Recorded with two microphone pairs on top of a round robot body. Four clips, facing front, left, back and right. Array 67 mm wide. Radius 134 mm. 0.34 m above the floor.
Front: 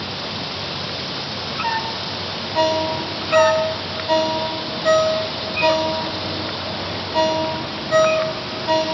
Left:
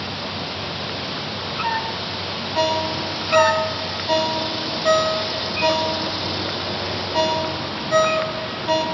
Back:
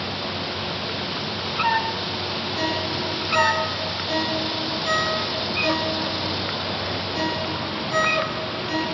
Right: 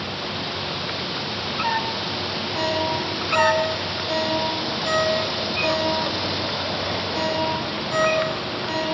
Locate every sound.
2.5 s a ringtone: 35° left, 2.5 m